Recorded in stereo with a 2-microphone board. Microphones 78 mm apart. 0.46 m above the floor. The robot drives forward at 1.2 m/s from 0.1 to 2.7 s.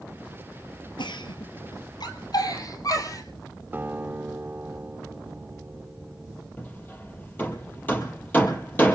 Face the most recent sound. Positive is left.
turn(degrees=25)  # may be behind; listen again after turning